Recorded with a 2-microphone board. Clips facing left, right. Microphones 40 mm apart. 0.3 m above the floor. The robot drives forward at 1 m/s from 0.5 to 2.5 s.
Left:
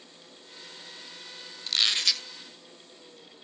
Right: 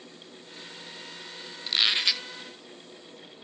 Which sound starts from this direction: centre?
A squeak, at 1.7 s.